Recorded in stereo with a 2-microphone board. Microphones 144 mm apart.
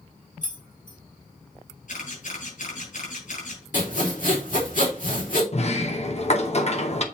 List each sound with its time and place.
0.4 s keys jangling: 65° left (ahead or behind), 1.7 m
1.9 s a camera shutter: 70° left (ahead or behind), 4.5 m
3.7 s sawing: 70° left (ahead or behind), 2.5 m
5.5 s a sliding door: 50° left (ahead or behind), 0.7 m